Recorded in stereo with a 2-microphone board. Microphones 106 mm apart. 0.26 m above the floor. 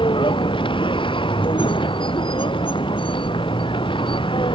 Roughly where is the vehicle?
Left.